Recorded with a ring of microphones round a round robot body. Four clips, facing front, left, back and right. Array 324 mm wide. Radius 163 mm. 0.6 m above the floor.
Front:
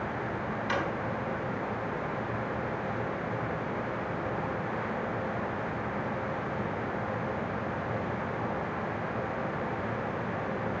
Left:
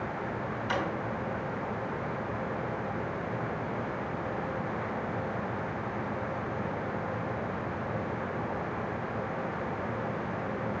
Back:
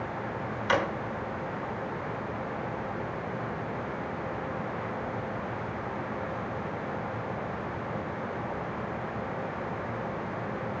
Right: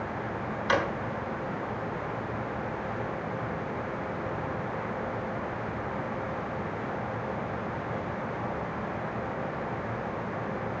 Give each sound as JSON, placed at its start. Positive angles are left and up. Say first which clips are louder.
{"t": 0.7, "sound": "a drawer", "louder": "right 6 dB, back 6 dB", "azimuth_deg": -130, "distance_m": 1.5}